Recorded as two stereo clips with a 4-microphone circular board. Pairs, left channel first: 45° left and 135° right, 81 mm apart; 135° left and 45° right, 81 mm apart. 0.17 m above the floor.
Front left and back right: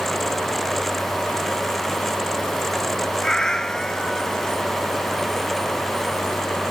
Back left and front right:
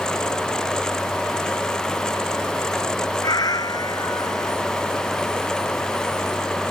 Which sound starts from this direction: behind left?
A cat meowing, at 3.2 s.